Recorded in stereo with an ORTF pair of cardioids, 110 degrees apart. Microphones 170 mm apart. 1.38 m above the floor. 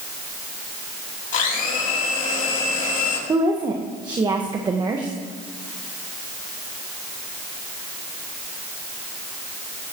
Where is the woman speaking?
25° right, 1.5 m.